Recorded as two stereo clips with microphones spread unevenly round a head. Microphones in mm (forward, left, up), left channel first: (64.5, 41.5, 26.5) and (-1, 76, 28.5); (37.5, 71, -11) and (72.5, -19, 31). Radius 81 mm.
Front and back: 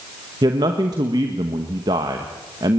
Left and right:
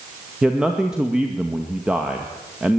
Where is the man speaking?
165° right, 1.5 m.